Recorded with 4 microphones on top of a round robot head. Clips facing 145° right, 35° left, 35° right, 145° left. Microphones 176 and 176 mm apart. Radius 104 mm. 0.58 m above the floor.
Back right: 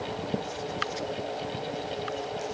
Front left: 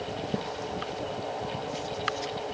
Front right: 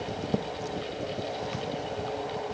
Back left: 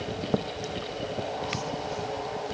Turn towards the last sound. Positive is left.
No sound to turn to.